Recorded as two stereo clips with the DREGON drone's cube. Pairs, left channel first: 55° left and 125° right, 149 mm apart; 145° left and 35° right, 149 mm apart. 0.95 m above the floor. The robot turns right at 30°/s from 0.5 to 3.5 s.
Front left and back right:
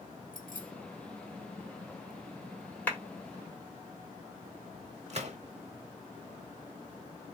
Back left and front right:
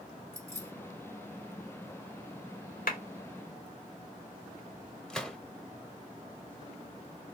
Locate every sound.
0.3 s keys jangling: 35° left, 2.0 m; by 0.7 s 40° left, 2.0 m
2.9 s a clap: 135° left, 1.7 m; by 3.0 s 140° left, 1.7 m
5.1 s a gunshot: 130° right, 0.9 m